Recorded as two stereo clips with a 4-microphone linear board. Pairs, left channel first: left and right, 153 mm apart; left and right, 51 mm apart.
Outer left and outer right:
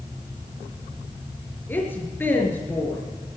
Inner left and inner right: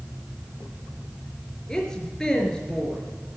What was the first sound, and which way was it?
A woman speaking, 15° left (ahead or behind).